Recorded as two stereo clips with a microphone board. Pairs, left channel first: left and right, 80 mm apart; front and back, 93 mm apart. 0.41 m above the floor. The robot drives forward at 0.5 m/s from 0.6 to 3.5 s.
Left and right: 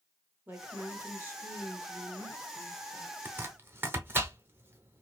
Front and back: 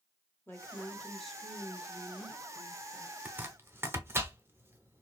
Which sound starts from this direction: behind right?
Chopping, at 3.2 s.